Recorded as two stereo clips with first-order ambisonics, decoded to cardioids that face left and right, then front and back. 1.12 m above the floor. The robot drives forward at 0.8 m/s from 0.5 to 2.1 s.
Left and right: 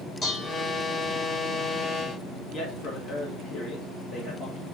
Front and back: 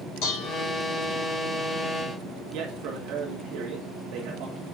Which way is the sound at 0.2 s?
20° left.